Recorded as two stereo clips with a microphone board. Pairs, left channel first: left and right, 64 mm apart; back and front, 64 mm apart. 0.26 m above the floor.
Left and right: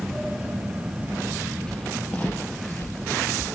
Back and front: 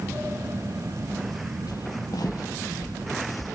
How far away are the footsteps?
About 1.4 m.